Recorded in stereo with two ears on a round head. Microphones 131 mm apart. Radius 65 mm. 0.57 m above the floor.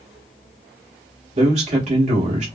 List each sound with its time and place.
1.4 s a man speaking: 45° right (ahead or behind), 1.0 m